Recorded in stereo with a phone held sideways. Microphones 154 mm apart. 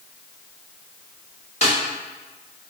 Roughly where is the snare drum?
Left.